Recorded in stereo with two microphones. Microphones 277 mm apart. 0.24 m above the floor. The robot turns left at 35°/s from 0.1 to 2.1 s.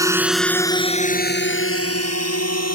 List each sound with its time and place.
0.0 s a drone: 10° right (ahead or behind); by 2.8 s 70° left (ahead or behind)